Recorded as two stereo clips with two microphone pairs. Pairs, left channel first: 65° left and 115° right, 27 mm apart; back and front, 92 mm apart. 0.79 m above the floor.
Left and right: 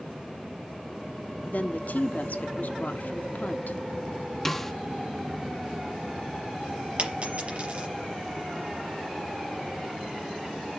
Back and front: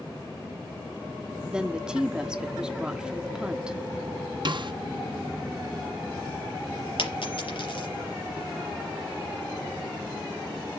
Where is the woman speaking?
80° left, 1.3 m.